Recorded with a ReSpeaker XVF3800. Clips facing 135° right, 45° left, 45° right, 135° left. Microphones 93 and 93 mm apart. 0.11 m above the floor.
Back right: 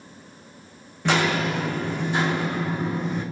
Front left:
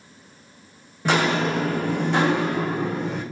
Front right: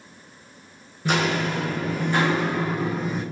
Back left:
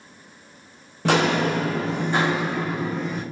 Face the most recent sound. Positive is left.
turn(degrees=35)